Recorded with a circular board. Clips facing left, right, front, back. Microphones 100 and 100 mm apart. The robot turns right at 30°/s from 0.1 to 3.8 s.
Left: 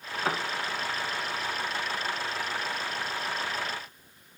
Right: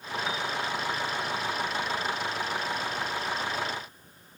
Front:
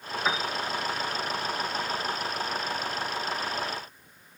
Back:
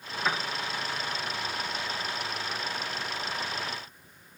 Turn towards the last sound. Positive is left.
turn(degrees=-175)